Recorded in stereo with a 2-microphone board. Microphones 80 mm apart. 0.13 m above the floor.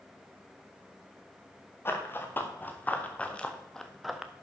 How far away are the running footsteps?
About 2.5 m.